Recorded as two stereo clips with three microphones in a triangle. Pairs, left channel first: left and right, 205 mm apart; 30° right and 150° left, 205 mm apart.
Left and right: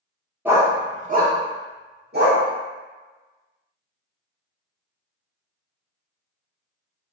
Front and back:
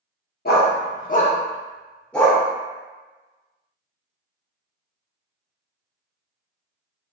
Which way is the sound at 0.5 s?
10° right.